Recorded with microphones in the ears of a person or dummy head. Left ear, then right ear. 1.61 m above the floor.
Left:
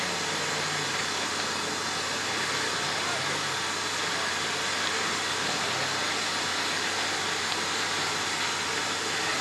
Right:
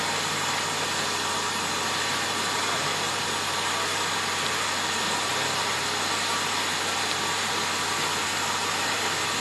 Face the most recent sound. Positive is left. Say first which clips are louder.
# right 3 dB
turn(degrees=-35)  # may be behind; listen again after turning